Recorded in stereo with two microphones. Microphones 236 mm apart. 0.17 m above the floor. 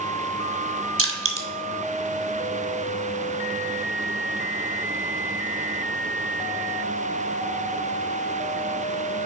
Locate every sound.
1.0 s crushing: 65° right (ahead or behind), 1.2 m